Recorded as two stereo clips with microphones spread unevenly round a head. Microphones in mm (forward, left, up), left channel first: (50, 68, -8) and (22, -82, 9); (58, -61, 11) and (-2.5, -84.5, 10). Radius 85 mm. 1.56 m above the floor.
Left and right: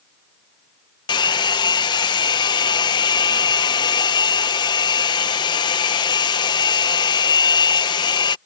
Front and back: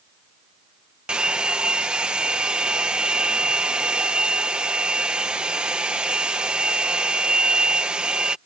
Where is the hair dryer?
130° left.